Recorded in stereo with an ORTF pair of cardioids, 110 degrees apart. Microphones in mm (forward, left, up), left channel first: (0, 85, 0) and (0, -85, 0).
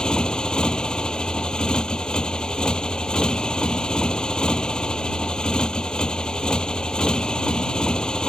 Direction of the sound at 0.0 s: 5° left.